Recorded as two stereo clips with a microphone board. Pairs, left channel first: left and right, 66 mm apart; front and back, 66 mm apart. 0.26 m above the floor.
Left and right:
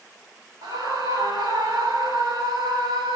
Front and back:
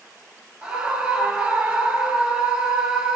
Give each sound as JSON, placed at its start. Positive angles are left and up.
{"t": 0.6, "sound": "a scream", "azimuth_deg": -100, "distance_m": 4.0}